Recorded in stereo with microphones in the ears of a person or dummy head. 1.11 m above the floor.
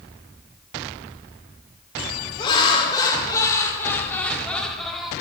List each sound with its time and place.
2.4 s laughter: 30° left (ahead or behind), 3.5 m; by 5.1 s centre (ahead or behind), 3 m